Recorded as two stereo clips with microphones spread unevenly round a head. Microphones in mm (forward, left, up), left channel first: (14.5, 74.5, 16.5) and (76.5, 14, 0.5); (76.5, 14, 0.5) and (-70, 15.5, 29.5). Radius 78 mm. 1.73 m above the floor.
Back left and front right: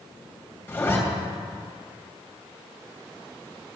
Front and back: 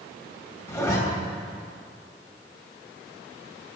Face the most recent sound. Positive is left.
turn(degrees=70)